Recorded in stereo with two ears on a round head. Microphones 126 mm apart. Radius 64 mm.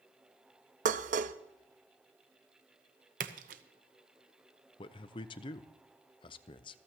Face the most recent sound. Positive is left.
turn(degrees=35)  # may be behind; listen again after turning